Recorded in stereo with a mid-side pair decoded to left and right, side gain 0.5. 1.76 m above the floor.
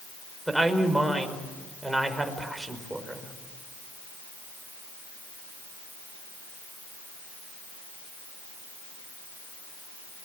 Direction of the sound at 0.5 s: 10° right.